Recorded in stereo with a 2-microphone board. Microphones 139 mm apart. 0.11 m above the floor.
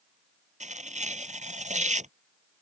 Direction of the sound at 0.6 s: 60° right (ahead or behind).